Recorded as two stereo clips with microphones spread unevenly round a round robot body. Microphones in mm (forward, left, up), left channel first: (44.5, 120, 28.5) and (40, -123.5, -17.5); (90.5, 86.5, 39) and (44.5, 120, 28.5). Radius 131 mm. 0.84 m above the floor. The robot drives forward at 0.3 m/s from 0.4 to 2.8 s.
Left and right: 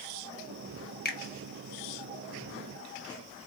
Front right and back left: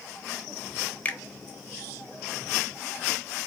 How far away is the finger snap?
About 1.1 m.